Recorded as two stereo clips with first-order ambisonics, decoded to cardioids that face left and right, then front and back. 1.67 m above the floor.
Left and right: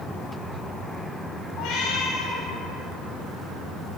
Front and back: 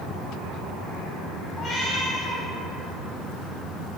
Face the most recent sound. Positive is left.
turn(degrees=65)